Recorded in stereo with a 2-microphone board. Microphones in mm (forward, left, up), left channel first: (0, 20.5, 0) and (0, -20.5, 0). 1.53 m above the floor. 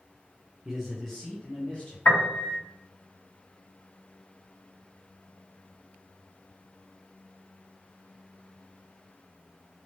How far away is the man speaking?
About 0.7 m.